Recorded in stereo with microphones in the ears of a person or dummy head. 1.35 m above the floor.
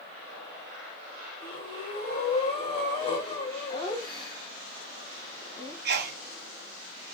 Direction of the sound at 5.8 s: 50° right (ahead or behind).